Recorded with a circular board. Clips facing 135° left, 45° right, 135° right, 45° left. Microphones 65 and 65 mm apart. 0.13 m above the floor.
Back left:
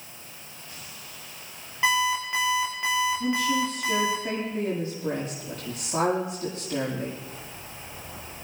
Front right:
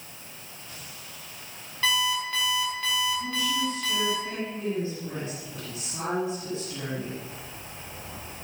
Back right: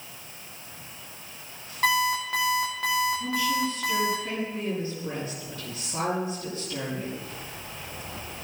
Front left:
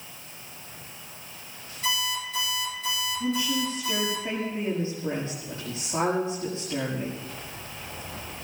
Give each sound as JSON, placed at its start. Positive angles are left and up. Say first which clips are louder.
{"t": 1.8, "sound": "an alarm clock", "louder": "back left 3 dB, back right 6 dB", "azimuth_deg": -150, "distance_m": 7.5}
{"t": 3.2, "sound": "a woman speaking", "louder": "back left 4 dB, back right 1 dB", "azimuth_deg": 105, "distance_m": 6.0}